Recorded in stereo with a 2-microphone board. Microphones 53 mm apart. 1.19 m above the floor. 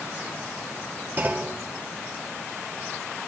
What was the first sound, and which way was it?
A clunk, 40° right (ahead or behind).